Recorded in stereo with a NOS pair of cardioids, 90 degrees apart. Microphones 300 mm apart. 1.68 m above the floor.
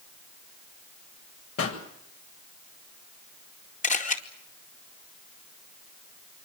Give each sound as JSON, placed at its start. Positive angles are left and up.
{"t": 1.6, "sound": "a pop", "azimuth_deg": 50, "distance_m": 8.0}
{"t": 3.8, "sound": "a camera shutter", "azimuth_deg": 25, "distance_m": 4.5}